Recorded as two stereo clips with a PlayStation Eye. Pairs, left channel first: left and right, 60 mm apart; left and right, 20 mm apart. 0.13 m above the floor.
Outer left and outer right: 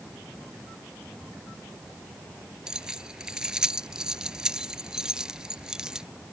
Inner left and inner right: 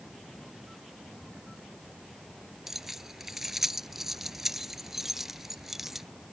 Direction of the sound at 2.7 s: 15° right (ahead or behind).